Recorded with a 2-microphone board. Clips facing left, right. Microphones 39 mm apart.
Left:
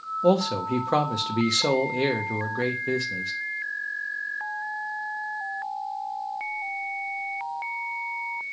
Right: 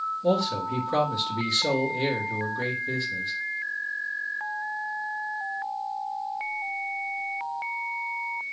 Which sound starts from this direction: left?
A man speaking, at 0.2 s.